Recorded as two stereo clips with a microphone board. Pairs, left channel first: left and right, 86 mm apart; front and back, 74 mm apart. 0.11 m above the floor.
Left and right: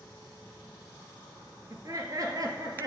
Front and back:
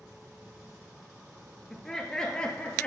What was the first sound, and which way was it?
Laughter, 85° right.